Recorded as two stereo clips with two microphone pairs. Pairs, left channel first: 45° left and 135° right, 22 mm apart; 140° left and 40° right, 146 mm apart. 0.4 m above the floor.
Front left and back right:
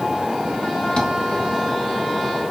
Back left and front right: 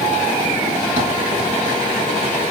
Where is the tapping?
Straight ahead, 3.5 m.